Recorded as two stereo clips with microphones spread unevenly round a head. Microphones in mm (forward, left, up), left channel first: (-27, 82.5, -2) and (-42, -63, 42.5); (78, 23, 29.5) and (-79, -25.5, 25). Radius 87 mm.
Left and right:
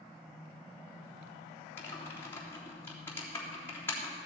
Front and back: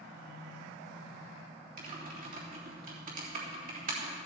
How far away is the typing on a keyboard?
About 3.5 m.